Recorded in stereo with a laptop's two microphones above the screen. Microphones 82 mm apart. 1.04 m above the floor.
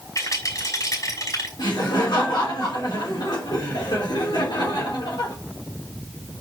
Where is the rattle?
45° left (ahead or behind), 5.5 m.